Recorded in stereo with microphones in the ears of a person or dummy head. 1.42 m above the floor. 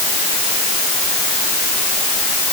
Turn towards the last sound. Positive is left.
No sound to turn to.